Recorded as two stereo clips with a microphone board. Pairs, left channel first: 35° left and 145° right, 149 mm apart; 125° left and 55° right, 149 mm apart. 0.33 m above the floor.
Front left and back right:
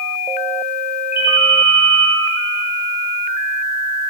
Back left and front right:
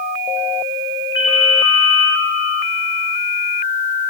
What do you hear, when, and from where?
1.1 s a ringtone: 20° right, 8.5 m